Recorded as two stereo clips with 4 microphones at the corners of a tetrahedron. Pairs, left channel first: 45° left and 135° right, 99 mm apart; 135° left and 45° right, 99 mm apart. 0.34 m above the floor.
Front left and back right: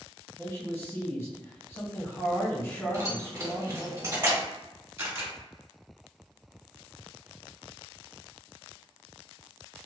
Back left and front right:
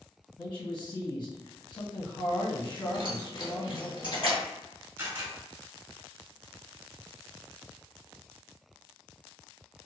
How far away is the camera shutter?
About 1.3 m.